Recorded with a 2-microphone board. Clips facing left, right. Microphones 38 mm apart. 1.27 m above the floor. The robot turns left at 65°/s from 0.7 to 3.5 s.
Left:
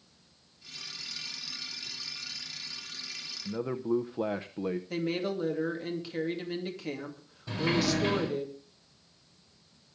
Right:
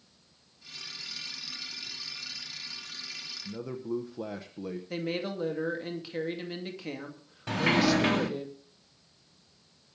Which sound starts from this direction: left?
A man speaking, at 3.5 s.